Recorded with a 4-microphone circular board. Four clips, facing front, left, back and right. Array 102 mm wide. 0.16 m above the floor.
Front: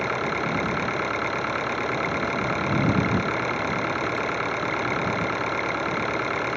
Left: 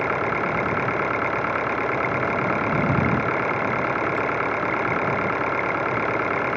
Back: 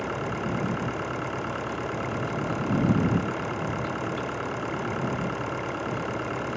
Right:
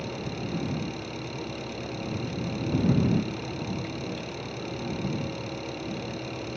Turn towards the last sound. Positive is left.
turn(degrees=75)